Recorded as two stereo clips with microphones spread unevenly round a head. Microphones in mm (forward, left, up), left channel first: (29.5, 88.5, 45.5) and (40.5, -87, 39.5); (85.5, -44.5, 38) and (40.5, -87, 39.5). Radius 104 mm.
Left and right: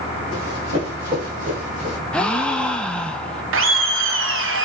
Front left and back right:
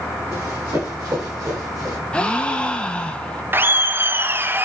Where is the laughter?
75° right, 0.5 m.